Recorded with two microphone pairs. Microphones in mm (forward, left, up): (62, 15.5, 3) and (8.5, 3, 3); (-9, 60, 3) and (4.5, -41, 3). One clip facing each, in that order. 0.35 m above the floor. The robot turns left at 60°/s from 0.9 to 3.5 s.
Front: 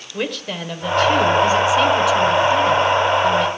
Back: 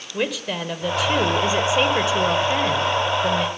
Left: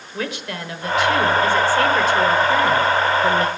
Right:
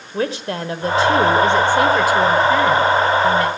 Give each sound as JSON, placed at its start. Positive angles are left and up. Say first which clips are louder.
{"t": 0.1, "sound": "a woman speaking", "louder": "even, right 6 dB", "azimuth_deg": -85, "distance_m": 1.0}